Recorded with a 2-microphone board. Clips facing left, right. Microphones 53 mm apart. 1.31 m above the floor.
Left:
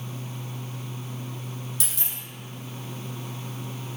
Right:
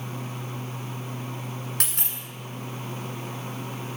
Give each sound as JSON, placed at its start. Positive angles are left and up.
{"t": 1.8, "sound": "a dropped coin", "side_deg": -55, "distance_m": 1.7}